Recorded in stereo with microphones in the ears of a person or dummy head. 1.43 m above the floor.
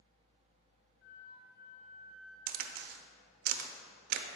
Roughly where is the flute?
Left.